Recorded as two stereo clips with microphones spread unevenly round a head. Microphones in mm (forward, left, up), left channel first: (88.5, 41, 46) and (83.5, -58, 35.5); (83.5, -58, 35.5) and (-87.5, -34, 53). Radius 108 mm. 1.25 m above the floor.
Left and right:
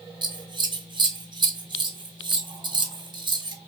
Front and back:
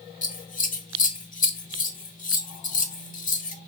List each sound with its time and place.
0.2 s scissors: 50° right, 1.2 m